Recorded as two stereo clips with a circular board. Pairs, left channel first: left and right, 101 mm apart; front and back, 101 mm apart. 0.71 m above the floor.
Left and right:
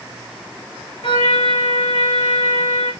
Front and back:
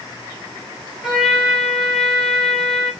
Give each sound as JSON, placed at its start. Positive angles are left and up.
{"t": 1.0, "sound": "a trumpet", "azimuth_deg": 95, "distance_m": 4.0}